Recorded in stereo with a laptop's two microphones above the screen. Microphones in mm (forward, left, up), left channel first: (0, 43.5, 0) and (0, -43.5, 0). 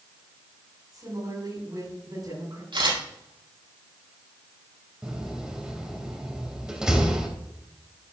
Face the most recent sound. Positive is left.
turn(degrees=-10)  # may be behind; listen again after turning